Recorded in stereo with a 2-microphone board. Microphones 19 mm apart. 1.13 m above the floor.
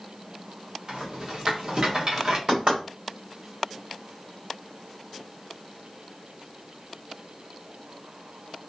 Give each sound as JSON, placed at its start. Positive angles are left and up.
{"t": 0.9, "sound": "a rattle", "side_deg": -40, "distance_m": 1.0}
{"t": 2.5, "sound": "knocking", "side_deg": -55, "distance_m": 1.5}